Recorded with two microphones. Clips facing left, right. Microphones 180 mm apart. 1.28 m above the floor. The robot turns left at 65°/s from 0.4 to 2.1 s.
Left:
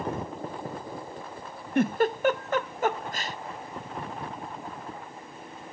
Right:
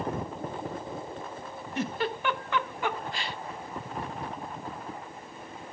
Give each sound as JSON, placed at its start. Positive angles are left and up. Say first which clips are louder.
{"t": 1.8, "sound": "a giggle", "louder": "left 7 dB", "side_deg": 55, "distance_m": 0.6}